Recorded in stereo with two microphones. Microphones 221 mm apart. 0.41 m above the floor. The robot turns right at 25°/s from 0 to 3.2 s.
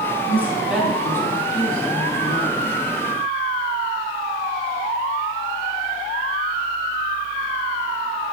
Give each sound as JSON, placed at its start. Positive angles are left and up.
{"t": 0.3, "sound": "a woman speaking", "azimuth_deg": -10, "distance_m": 3.0}